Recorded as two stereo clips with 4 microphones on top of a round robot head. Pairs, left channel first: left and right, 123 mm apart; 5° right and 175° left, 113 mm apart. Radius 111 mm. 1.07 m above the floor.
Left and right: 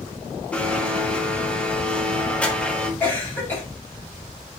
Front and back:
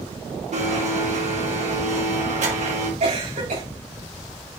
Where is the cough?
165° left, 6 m.